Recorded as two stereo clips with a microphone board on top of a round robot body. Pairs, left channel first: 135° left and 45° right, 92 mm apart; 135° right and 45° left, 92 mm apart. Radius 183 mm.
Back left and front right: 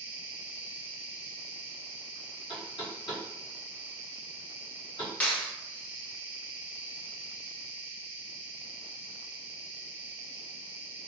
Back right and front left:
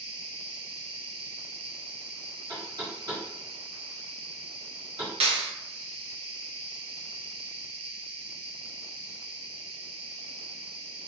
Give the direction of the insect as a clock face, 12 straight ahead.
11 o'clock.